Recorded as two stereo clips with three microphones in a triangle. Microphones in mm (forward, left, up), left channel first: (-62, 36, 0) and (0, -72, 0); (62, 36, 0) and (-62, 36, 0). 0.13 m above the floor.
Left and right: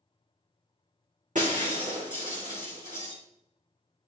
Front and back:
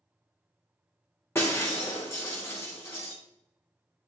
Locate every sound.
1.4 s breaking glass: 70° right, 4 m